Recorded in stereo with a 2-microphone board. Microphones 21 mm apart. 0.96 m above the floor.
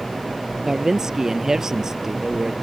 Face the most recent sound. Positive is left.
turn(degrees=-25)  # may be behind; listen again after turning